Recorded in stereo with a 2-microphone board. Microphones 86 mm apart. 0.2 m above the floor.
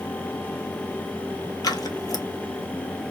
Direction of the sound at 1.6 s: 50° left (ahead or behind).